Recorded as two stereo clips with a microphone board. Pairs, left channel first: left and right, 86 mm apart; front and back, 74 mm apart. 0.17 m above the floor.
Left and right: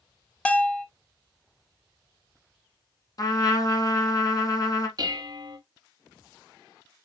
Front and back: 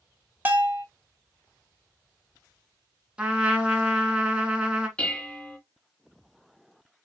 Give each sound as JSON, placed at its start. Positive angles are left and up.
{"t": 0.5, "sound": "a bell", "azimuth_deg": 145, "distance_m": 0.8}
{"t": 3.2, "sound": "a trumpet", "azimuth_deg": 110, "distance_m": 1.2}
{"t": 5.0, "sound": "dishes clattering", "azimuth_deg": -70, "distance_m": 1.3}